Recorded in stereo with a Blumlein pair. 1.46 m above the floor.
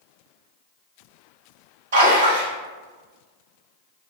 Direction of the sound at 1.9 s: 55° right.